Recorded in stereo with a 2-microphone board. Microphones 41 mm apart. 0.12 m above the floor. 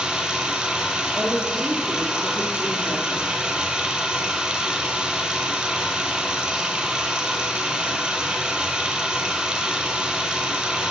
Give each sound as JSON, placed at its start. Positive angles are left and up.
{"t": 0.0, "sound": "running water", "side_deg": -25, "distance_m": 0.9}
{"t": 1.1, "sound": "a woman speaking", "side_deg": -50, "distance_m": 2.5}